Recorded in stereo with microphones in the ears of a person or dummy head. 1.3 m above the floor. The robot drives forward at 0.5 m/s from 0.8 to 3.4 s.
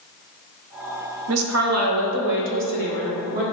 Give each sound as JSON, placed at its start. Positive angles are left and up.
{"t": 1.3, "sound": "a woman speaking", "side_deg": -70, "distance_m": 0.8}